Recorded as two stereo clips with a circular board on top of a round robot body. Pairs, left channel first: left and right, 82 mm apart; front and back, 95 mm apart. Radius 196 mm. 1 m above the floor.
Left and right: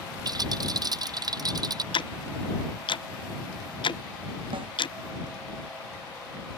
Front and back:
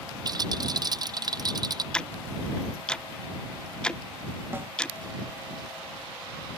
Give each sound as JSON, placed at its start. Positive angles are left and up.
{"t": 0.2, "sound": "a rattle", "azimuth_deg": -135}
{"t": 1.9, "sound": "ticking", "azimuth_deg": 80}
{"t": 4.5, "sound": "a snare drum", "azimuth_deg": -110}